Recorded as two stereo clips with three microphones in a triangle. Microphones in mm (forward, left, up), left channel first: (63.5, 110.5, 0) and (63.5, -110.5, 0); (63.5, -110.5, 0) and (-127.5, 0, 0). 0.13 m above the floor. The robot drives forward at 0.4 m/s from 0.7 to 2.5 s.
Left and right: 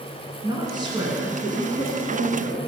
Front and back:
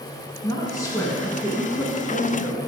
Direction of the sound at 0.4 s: 70° right.